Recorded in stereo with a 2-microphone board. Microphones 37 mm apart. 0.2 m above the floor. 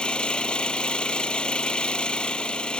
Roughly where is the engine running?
Left.